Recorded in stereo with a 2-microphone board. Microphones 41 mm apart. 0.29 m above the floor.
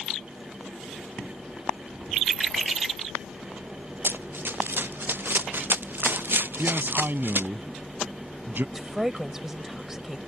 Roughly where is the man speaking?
Right.